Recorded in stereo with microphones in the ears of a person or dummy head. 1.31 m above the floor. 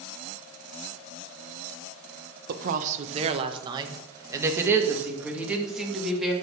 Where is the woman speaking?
50° right (ahead or behind), 1.0 m; by 6.3 s centre (ahead or behind), 2.5 m.